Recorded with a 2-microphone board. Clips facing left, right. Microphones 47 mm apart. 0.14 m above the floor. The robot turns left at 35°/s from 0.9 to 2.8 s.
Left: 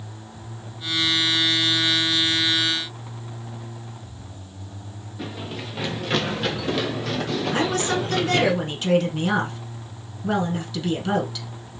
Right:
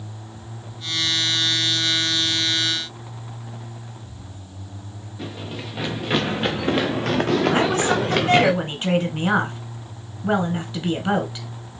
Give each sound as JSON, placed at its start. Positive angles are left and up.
{"t": 5.2, "sound": "running footsteps", "side_deg": 5, "distance_m": 1.5}
{"t": 7.5, "sound": "a woman speaking", "side_deg": -30, "distance_m": 1.1}